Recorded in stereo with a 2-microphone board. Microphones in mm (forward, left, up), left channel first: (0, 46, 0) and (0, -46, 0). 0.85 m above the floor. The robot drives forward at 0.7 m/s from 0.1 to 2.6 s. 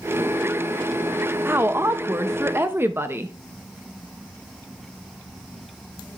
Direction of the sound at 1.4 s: 25° right (ahead or behind).